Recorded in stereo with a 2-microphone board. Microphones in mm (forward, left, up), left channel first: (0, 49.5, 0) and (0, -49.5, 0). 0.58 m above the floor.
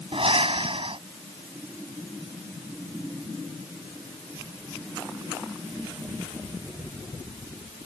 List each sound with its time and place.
0.1 s breathing: 70° right (ahead or behind)